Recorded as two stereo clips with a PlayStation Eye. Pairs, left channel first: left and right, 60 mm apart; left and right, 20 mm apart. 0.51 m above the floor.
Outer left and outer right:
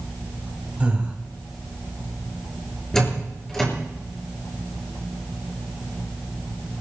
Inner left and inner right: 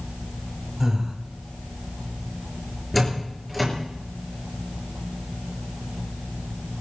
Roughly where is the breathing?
Right.